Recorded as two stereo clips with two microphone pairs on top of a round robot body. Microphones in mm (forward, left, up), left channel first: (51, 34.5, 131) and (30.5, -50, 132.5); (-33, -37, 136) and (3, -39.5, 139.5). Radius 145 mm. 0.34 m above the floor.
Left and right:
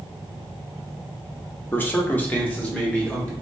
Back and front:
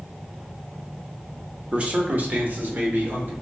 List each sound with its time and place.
1.7 s a man speaking: 30° left, 0.9 m; by 3.3 s straight ahead, 1.9 m